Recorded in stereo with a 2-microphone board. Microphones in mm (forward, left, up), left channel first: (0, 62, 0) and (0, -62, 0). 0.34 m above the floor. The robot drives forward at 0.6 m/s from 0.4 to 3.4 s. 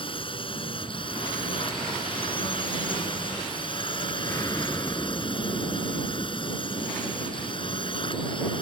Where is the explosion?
25° left (ahead or behind).